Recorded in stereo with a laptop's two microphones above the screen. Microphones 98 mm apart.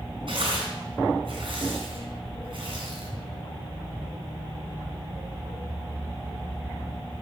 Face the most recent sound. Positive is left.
turn(degrees=-65)  # may be behind; listen again after turning